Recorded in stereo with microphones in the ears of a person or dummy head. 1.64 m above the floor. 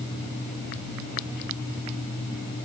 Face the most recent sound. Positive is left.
No sound to turn to.